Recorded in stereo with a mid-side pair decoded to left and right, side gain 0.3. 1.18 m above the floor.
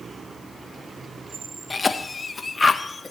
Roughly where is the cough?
Ahead left.